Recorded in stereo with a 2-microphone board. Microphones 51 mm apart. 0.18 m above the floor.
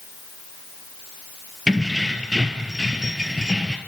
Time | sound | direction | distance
1.7 | keys jangling | 10° right (ahead or behind) | 2.5 m